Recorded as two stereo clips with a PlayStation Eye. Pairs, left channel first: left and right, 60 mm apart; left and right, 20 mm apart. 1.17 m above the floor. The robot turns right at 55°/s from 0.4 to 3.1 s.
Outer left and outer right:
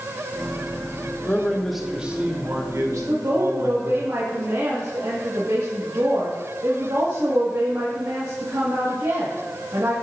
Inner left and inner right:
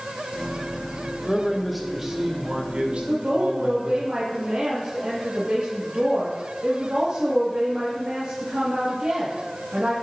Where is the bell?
No bell in this recording.